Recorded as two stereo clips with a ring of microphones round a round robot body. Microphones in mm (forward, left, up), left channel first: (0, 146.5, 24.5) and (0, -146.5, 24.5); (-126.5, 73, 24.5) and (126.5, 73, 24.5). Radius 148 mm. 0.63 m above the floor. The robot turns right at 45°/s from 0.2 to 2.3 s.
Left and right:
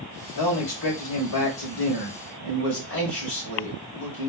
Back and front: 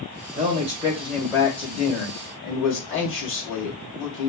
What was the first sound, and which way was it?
A man speaking, 55° left.